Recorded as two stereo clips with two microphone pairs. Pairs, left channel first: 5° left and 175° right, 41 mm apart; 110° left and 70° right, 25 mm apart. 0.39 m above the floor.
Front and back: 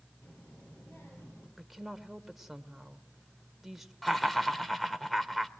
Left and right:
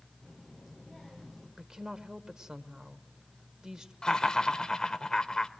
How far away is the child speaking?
About 7 m.